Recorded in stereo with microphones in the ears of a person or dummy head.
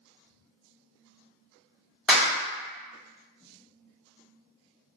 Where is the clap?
Centre (ahead or behind), 0.8 m.